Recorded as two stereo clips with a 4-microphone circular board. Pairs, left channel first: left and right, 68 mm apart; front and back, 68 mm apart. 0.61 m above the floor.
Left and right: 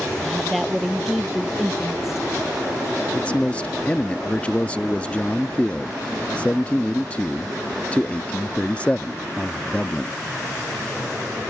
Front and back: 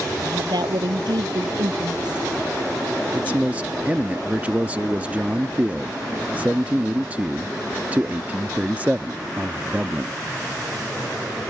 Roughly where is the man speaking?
Behind left.